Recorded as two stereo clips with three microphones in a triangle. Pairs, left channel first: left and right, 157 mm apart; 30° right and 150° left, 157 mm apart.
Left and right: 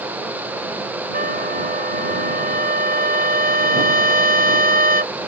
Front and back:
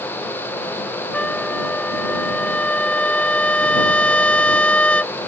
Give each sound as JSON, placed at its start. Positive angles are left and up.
{"t": 1.1, "sound": "a trumpet", "azimuth_deg": -115}